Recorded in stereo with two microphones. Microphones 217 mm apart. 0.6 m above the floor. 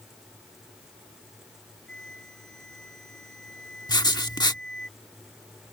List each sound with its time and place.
1.9 s a flute: 60° left (ahead or behind)
3.9 s writing: 20° left (ahead or behind)